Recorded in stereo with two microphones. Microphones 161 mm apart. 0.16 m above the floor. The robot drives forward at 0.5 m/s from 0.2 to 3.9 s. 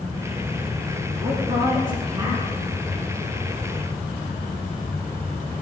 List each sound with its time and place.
1.2 s a woman speaking: 30° right (ahead or behind), 1.8 m; by 2.5 s 25° right (ahead or behind), 2 m